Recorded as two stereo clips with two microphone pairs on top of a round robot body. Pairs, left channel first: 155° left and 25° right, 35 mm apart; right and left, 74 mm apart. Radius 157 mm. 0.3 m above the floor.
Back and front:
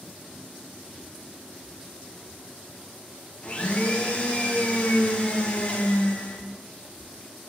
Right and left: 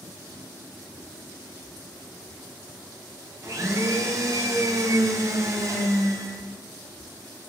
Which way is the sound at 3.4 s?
105° left.